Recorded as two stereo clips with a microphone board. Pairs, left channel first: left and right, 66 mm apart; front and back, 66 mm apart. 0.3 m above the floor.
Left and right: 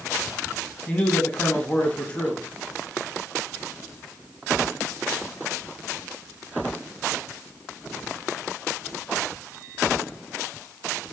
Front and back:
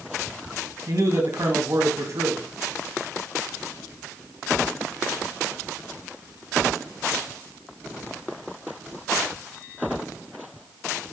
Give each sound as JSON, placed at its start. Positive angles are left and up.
{"t": 0.9, "sound": "a man speaking", "azimuth_deg": 160, "distance_m": 1.8}